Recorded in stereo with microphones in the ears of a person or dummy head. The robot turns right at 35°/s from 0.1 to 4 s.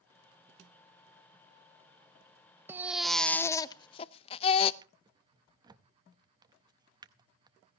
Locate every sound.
2.7 s a baby crying: 10° right, 0.6 m; by 4.7 s 35° left, 0.6 m
4.8 s a drawer: 20° right (ahead or behind), 0.6 m